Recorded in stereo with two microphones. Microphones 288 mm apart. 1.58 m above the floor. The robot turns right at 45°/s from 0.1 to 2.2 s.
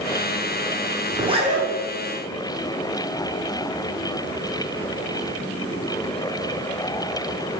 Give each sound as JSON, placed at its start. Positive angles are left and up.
{"t": 1.1, "sound": "a zipper", "side_deg": -10, "distance_m": 0.8}